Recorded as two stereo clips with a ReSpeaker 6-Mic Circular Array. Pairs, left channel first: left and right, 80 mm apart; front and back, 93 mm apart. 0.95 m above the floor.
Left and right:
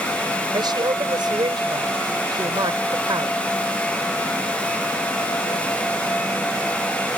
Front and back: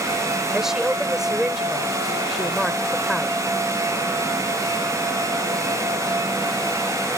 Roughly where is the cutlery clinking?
I don't hear cutlery clinking.